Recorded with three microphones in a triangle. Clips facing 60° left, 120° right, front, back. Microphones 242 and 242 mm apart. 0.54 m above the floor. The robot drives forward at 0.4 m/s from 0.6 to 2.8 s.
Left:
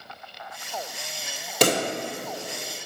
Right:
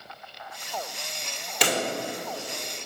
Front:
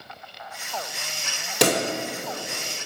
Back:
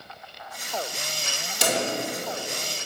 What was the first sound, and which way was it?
A pop, 15° left.